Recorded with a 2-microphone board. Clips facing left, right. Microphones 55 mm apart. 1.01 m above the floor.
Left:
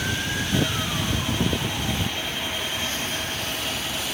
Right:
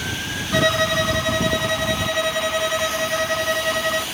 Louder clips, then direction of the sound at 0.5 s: Right 10 dB; 80° right.